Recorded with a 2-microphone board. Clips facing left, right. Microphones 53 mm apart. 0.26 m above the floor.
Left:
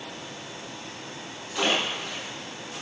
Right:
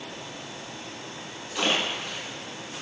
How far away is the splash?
About 2 m.